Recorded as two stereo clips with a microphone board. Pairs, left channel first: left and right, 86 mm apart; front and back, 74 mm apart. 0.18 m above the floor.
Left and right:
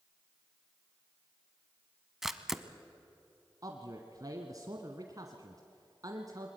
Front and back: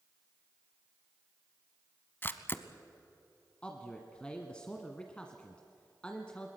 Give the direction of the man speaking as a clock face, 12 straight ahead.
2 o'clock.